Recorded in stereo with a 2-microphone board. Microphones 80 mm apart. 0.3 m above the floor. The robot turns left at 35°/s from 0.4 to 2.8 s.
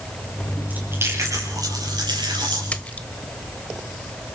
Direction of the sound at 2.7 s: 15° left (ahead or behind).